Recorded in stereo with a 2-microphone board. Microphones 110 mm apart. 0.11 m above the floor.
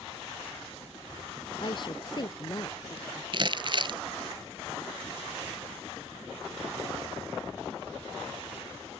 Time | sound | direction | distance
1.6 | a woman speaking | 50° left (ahead or behind) | ?
3.3 | crumpling | 50° right (ahead or behind) | ?